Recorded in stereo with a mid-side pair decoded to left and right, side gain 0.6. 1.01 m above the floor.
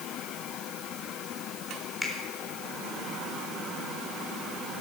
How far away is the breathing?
No breathing in this recording.